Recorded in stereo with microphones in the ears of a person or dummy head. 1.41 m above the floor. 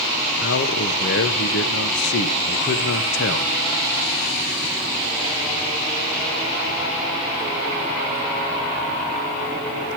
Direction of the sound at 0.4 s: 70° left (ahead or behind).